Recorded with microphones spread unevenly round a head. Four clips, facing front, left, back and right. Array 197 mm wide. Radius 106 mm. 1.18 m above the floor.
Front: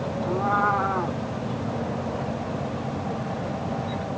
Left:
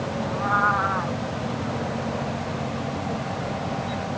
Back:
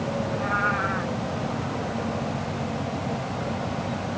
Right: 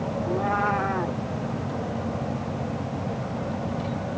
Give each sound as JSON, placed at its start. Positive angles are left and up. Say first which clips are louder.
{"t": 0.2, "sound": "a cat meowing", "louder": "left 2 dB, front 6 dB", "azimuth_deg": -45}